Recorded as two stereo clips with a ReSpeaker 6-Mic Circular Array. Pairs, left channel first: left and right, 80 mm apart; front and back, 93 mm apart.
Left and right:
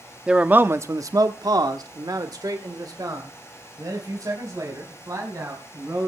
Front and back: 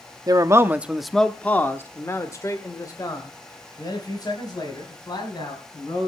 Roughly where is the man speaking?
Behind.